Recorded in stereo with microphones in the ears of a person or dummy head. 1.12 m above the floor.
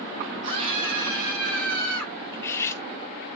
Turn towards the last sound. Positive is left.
turn(degrees=10)  # may be behind; listen again after turning